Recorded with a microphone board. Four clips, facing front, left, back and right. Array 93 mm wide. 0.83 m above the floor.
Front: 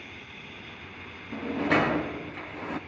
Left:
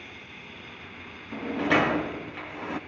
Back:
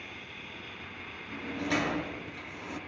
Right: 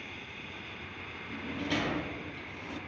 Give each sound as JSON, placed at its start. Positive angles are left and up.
{"t": 1.3, "sound": "a sliding door", "azimuth_deg": 55, "distance_m": 0.5}